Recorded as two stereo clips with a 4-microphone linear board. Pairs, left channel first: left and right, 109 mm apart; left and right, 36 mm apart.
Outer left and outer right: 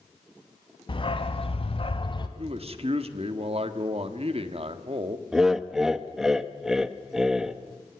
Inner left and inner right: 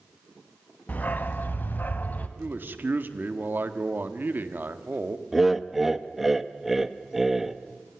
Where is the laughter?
5° right (ahead or behind), 1.1 m.